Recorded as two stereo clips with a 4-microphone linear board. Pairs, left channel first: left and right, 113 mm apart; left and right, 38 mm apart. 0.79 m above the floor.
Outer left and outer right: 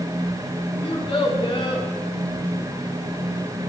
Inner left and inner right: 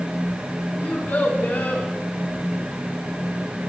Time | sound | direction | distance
0.8 | a child speaking | 50° left (ahead or behind) | 1.6 m